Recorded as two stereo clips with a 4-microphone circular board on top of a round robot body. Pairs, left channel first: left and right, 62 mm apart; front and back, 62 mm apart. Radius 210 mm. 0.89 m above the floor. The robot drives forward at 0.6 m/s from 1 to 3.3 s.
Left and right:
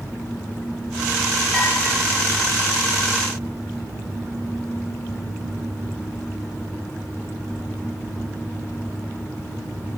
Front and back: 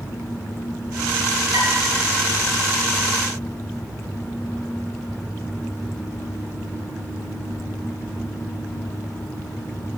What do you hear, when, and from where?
1.5 s dishes clattering: 170° left, 0.9 m